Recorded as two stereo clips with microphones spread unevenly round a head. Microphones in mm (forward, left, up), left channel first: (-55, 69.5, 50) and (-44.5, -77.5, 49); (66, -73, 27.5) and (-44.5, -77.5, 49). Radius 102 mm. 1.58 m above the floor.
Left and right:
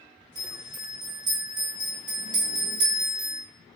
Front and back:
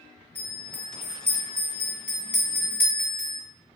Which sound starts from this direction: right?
A bell, at 0.3 s.